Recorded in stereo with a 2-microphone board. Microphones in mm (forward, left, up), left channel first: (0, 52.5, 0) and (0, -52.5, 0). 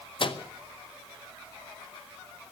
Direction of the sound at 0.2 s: 50° left (ahead or behind).